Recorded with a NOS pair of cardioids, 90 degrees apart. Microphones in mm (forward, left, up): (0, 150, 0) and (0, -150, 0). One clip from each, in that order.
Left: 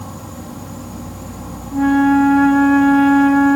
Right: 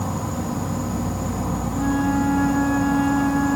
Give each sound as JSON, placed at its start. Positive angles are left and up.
{"t": 0.0, "sound": "an insect", "azimuth_deg": -35}
{"t": 1.7, "sound": "a flute", "azimuth_deg": 60}